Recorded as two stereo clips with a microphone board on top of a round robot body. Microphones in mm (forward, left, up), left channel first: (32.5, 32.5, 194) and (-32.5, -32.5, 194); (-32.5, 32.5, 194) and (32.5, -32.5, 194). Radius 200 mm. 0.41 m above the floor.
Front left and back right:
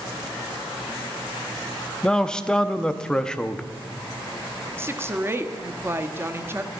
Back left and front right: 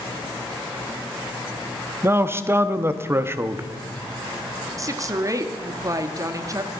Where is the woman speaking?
80° right, 0.9 m.